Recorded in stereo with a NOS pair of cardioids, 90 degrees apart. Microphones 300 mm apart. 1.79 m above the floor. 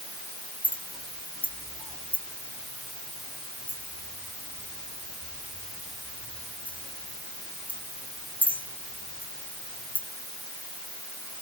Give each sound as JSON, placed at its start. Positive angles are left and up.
{"t": 0.6, "sound": "a clink", "azimuth_deg": 5}